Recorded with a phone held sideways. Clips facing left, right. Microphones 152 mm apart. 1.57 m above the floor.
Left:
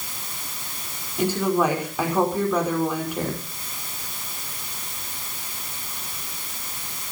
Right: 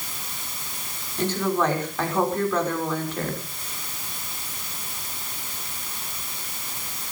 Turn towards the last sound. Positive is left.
turn(degrees=10)  # may be behind; listen again after turning